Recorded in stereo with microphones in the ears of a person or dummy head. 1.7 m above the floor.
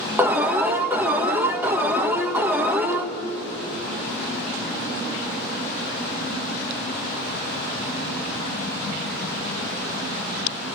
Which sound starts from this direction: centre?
An alarm, at 0.2 s.